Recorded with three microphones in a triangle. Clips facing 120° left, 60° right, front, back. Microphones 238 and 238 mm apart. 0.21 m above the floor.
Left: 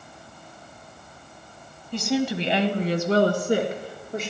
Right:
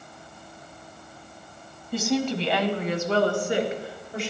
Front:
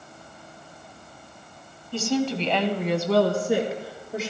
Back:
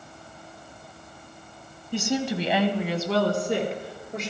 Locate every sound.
1.9 s a woman speaking: 130° right, 1.1 m; by 4.3 s 85° left, 3 m